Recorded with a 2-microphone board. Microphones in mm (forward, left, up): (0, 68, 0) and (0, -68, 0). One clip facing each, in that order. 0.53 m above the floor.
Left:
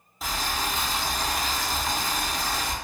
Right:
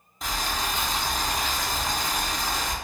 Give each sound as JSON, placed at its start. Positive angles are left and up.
{"t": 0.2, "sound": "boiling", "side_deg": 5, "distance_m": 0.5}